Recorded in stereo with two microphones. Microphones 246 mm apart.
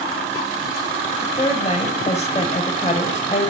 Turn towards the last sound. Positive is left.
turn(degrees=30)  # may be behind; listen again after turning